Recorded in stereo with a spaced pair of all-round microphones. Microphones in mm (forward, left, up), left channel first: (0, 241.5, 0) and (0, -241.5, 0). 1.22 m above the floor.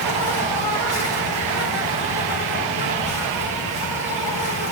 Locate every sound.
0.0 s an insect: 80° left, 5 m